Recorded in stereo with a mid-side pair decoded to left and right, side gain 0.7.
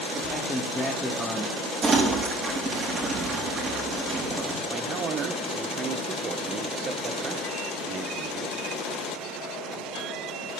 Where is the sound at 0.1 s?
Straight ahead, 1.2 m.